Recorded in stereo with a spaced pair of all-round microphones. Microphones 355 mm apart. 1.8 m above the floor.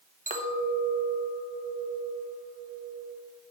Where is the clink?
20° right (ahead or behind), 1.2 m.